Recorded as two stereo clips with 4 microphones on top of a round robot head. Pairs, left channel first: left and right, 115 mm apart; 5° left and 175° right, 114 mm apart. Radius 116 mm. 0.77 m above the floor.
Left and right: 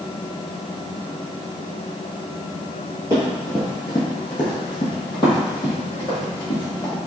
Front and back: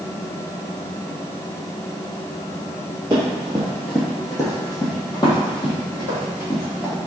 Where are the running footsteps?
145° right, 0.8 m; by 7.0 s 50° left, 3 m.